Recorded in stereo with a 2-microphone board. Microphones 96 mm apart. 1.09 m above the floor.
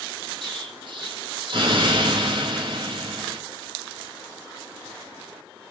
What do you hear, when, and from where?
0.4 s an explosion: 55° right (ahead or behind), 1.9 m